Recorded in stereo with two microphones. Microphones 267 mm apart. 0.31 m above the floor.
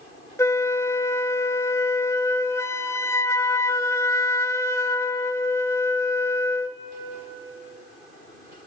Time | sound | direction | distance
0.4 | a flute | 10° left (ahead or behind) | 0.6 m